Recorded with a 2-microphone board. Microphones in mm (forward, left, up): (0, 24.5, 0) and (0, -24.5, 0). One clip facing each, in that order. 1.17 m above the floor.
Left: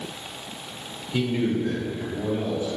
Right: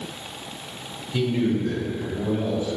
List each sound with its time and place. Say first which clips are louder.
1.1 s a man speaking: right 1 dB; 15° left (ahead or behind), 2.5 m; by 2.8 s 10° left (ahead or behind), 4 m